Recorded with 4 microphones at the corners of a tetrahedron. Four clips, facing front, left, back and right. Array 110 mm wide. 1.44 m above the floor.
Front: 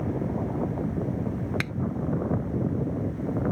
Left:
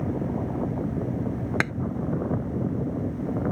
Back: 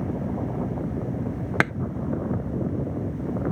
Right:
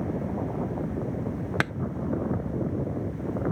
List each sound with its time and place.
1.6 s tapping: 175° right